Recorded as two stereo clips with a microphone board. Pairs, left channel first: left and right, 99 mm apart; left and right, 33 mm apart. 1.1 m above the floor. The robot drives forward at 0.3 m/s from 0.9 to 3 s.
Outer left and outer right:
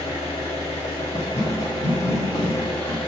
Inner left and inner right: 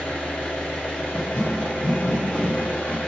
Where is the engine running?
75° left (ahead or behind), 1.0 m; by 3.1 s 65° left (ahead or behind), 1.1 m.